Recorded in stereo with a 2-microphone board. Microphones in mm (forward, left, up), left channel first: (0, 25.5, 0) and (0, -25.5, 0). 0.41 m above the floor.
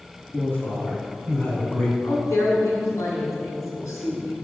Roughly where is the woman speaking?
Left.